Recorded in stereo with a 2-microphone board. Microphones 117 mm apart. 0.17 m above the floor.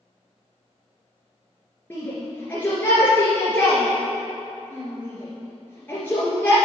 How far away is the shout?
About 2.5 m.